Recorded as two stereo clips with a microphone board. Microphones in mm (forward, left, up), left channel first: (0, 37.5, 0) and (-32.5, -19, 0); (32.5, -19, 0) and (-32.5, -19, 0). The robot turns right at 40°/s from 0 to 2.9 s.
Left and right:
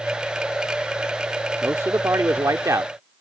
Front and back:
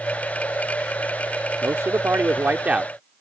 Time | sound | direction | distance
1.6 | a man speaking | 160° right | ?